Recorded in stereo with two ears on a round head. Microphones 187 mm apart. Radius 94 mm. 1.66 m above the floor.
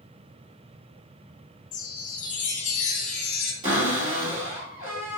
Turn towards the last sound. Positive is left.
turn(degrees=-35)  # may be behind; listen again after turning